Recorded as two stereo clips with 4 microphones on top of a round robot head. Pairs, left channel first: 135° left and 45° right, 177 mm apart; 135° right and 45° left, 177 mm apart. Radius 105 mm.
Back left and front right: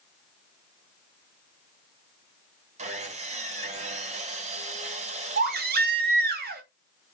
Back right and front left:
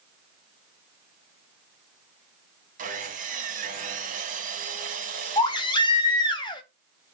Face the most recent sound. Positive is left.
turn(degrees=-70)